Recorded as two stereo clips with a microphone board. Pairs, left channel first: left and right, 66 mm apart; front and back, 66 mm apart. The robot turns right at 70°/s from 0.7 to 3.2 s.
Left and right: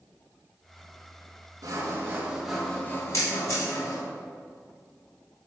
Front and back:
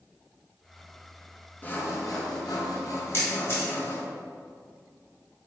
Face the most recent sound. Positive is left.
turn(degrees=50)